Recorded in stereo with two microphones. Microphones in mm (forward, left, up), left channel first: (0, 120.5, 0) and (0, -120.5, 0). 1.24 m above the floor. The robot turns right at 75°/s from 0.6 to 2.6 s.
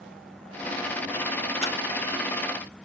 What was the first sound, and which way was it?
A camera shutter, 25° left (ahead or behind).